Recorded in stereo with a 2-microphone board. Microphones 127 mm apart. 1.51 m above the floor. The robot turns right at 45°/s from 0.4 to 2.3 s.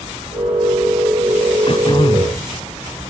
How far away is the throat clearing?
About 1.8 m.